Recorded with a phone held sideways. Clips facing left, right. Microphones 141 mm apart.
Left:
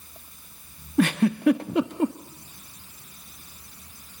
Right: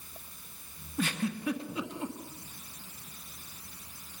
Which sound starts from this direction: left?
A giggle, at 1.0 s.